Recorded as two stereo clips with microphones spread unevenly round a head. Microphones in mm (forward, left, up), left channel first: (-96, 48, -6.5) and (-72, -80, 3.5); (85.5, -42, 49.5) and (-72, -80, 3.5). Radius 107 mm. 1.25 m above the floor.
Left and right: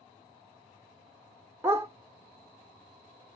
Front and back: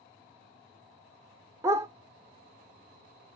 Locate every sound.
1.6 s a dog barking: 80° right, 0.9 m